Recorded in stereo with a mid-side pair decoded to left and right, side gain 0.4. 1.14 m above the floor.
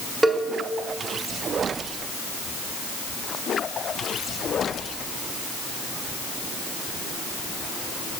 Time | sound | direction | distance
0.2 | a cowbell | 25° right | 1.3 m